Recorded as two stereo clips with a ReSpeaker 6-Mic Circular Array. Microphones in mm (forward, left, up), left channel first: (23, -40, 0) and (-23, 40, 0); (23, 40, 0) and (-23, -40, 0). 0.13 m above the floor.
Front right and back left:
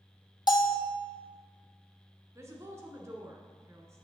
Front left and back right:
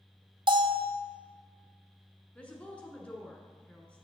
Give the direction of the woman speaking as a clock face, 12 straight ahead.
8 o'clock.